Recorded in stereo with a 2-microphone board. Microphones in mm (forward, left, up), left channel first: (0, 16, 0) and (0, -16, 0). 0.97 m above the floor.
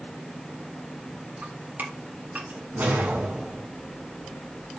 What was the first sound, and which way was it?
Dripping, 65° right (ahead or behind).